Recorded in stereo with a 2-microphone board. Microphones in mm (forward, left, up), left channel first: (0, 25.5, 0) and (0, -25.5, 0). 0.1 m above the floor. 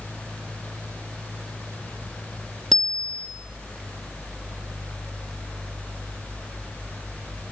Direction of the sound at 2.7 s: 5° left (ahead or behind).